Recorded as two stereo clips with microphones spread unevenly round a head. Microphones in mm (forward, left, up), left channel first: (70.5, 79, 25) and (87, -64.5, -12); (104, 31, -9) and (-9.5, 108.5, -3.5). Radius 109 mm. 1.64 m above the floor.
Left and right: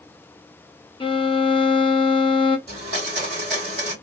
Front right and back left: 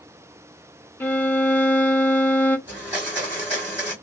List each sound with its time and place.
1.0 s a violin: 45° left, 0.7 m
2.7 s a blender: 140° right, 1.9 m